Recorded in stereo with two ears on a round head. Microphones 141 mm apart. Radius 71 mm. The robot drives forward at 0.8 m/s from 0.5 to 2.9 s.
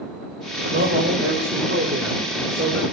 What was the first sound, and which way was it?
A man speaking, 70° right (ahead or behind).